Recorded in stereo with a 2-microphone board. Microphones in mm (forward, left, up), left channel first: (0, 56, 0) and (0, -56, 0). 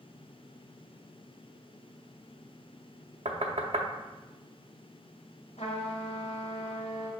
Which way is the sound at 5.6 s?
75° left (ahead or behind).